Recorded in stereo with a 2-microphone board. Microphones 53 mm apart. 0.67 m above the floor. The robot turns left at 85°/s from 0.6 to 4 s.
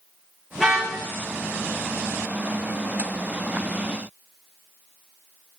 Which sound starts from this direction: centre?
A car horn, at 0.6 s.